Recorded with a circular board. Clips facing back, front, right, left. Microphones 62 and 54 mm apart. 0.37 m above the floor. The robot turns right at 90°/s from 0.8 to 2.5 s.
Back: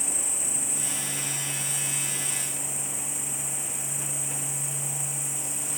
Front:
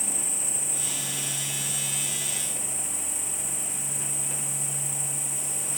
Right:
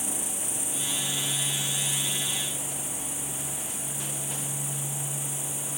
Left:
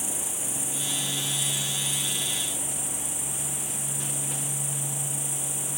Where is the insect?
55° right, 1.1 m; by 5.8 s 100° left, 1.1 m.